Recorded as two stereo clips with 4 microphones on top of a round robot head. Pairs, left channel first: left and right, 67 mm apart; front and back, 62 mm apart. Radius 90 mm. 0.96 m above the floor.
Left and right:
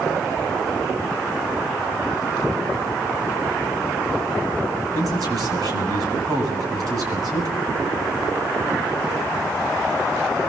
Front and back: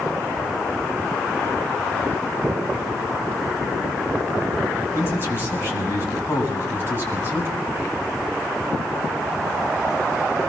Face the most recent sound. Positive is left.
turn(degrees=-55)